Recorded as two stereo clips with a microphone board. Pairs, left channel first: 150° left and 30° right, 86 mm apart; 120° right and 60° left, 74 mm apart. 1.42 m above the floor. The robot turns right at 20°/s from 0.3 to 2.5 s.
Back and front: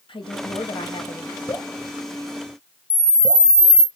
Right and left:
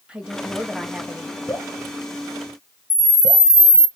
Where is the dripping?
Straight behind, 1.5 m; by 3.5 s 160° right, 1.5 m.